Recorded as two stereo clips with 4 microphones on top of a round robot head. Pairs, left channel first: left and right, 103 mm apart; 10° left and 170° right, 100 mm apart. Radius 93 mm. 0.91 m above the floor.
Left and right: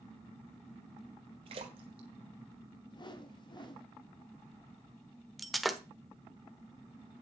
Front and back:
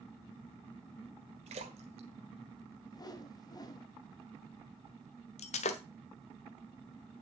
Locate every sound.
1.5 s a splash: 140° right, 1.4 m
2.9 s a whoosh: 55° left, 1.9 m
5.4 s breaking glass: straight ahead, 1.1 m